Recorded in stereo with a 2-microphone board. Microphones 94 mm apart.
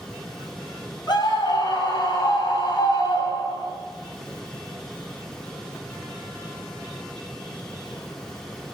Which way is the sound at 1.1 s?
50° left (ahead or behind).